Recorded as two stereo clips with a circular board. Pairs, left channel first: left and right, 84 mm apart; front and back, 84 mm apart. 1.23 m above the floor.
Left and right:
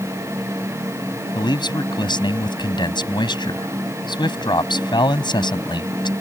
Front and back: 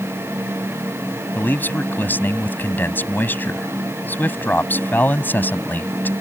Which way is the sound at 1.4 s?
65° left.